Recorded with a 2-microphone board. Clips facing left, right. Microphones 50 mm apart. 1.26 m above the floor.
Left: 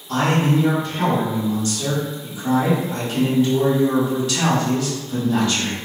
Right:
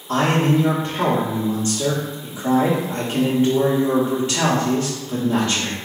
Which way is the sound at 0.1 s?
30° right (ahead or behind).